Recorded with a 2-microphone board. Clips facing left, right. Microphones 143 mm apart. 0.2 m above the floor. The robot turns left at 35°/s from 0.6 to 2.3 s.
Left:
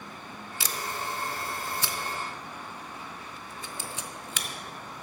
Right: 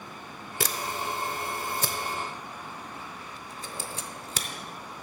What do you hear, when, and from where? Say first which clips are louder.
0.6 s a camera shutter: right 3 dB; 60° right (ahead or behind), 0.8 m; by 4.5 s 40° right (ahead or behind), 0.8 m